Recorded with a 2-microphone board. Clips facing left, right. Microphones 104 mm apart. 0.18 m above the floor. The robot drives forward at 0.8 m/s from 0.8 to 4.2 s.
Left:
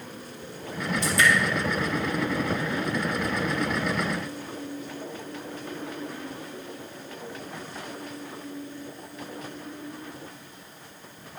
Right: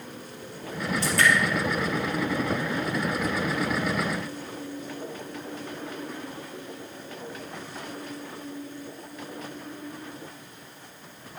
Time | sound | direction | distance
1.0 | dripping | 65° right (ahead or behind) | 3.5 m